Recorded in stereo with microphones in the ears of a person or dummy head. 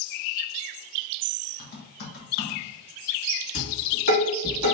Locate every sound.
1.6 s typing on a keyboard: 55° left (ahead or behind), 1.1 m
3.5 s dishes clattering: 50° left (ahead or behind), 2.0 m